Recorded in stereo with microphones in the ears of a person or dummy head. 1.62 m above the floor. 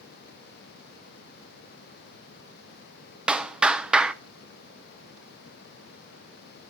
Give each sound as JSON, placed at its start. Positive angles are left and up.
{"t": 3.3, "sound": "a clap", "side_deg": -5, "distance_m": 0.7}